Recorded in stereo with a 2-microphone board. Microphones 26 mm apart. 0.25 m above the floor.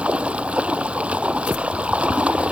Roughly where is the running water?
Right.